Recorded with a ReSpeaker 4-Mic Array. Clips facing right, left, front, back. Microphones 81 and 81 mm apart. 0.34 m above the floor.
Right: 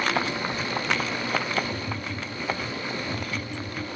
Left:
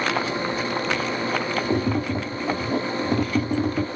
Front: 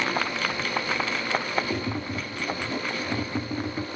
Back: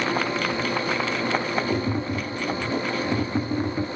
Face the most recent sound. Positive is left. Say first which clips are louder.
# left 9 dB, back 4 dB
turn(degrees=100)